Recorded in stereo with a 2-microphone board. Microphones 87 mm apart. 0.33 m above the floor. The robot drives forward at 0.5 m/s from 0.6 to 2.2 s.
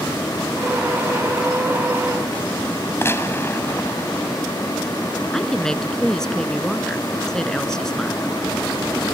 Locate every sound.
3.0 s a gunshot: 30° left (ahead or behind)
5.3 s a woman speaking: 5° left (ahead or behind)